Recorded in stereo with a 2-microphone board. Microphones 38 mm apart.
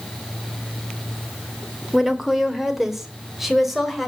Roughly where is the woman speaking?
Centre.